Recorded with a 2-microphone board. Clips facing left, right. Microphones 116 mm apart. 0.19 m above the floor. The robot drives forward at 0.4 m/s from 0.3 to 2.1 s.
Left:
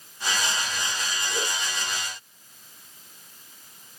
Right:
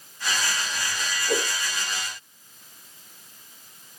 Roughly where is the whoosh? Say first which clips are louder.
Right 7 dB; right.